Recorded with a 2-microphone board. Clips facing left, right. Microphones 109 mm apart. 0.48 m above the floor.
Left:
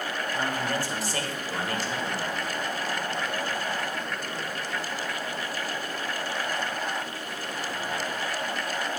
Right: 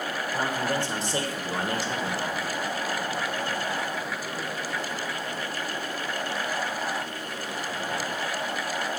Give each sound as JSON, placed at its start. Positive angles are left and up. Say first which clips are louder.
{"t": 0.3, "sound": "a man speaking", "louder": "right 2 dB", "side_deg": -25, "distance_m": 1.3}